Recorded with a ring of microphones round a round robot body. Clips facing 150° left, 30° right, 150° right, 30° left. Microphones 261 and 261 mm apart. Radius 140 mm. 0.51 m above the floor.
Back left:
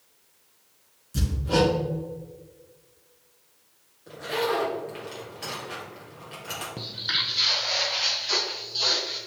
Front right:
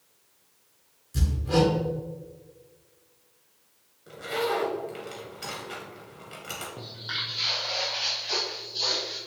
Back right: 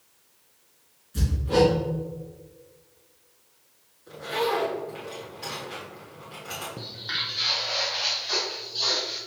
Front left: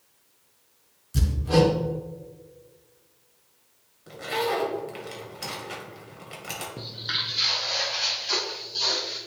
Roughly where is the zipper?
Ahead left.